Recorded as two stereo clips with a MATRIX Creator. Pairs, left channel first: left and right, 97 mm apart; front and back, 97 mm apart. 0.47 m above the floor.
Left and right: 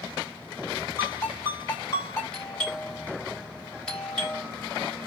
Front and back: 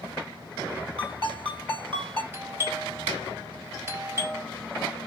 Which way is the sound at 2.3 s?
155° left.